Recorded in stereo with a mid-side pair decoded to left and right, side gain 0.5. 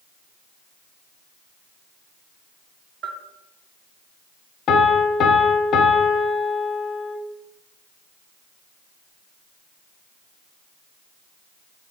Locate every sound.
3.0 s a bell: 70° right, 0.9 m
4.7 s a piano: 60° left, 0.7 m